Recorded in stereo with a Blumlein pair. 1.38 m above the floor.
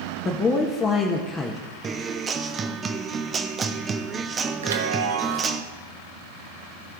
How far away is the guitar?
About 0.8 m.